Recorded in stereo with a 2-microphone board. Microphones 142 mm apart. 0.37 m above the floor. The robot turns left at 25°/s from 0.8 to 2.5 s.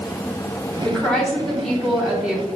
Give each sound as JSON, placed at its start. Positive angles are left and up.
{"t": 0.8, "sound": "a woman speaking", "side_deg": 5, "distance_m": 1.0}